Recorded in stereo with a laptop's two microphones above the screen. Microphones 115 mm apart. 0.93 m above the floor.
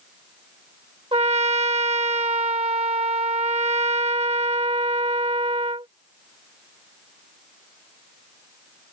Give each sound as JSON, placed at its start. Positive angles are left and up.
{"t": 1.1, "sound": "a trumpet", "side_deg": -60}